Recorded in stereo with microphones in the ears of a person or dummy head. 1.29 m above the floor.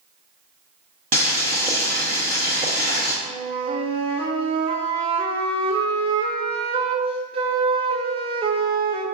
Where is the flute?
25° right (ahead or behind), 0.5 m.